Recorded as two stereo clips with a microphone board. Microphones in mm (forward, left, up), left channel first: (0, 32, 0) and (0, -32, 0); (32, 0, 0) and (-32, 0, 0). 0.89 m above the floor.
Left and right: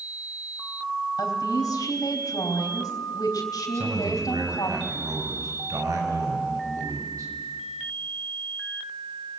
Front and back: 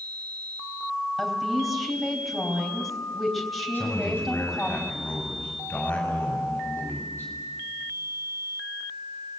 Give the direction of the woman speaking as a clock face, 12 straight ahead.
9 o'clock.